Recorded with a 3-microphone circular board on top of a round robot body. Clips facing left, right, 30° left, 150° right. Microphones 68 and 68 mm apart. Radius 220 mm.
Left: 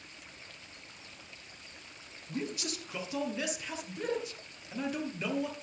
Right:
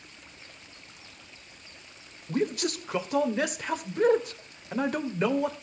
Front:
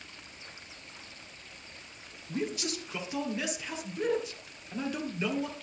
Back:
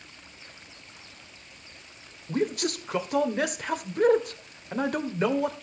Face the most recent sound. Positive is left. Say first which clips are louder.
# right 9 dB, back 7 dB
turn(degrees=-120)